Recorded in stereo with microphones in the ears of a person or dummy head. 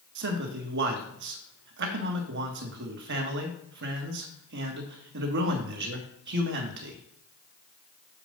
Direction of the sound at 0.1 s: 65° right (ahead or behind).